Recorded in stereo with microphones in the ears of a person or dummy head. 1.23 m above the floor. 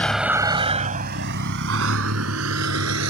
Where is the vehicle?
5° left (ahead or behind); by 3.1 s 80° right.